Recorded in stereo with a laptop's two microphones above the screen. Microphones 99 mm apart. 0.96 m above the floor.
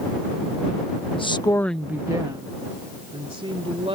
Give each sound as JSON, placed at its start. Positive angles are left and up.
{"t": 1.2, "sound": "a woman speaking", "side_deg": 60}